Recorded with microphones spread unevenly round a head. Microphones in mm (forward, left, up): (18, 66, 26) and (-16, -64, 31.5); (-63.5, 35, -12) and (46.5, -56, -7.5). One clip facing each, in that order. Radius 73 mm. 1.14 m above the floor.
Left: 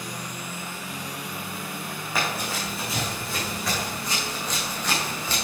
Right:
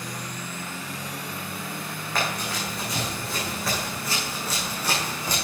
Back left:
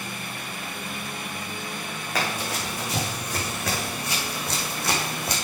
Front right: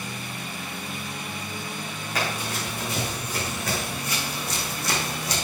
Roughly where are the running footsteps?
Behind.